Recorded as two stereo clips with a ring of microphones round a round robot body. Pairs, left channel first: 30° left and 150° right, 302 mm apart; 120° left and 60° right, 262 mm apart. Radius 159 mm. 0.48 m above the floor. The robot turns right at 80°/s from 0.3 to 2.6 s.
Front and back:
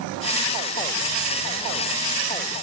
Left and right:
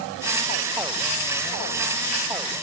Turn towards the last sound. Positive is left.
No sound to turn to.